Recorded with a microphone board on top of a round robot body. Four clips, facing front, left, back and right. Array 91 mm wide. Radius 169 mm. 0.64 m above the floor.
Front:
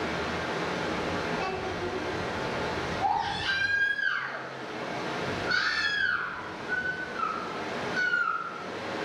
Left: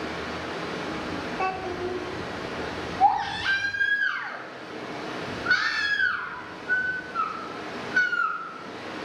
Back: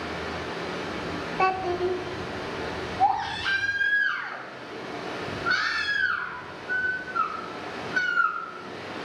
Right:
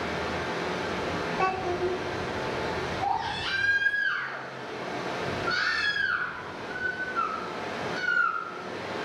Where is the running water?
55° right, 2.5 m.